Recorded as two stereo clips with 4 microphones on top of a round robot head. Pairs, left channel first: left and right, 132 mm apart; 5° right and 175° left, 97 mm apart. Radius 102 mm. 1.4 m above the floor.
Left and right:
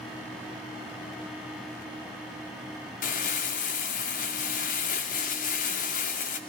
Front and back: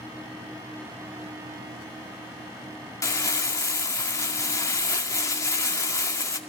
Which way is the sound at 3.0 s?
55° left.